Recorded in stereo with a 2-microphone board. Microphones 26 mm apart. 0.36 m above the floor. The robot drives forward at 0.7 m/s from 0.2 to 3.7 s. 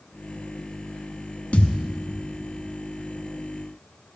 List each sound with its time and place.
1.5 s a thud: 50° left (ahead or behind), 1.0 m; by 1.8 s 60° left (ahead or behind), 0.9 m